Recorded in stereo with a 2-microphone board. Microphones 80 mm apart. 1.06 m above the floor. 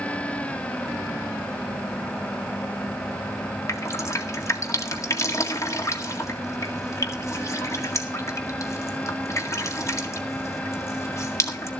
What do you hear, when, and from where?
3.7 s dripping: 40° left (ahead or behind), 1.8 m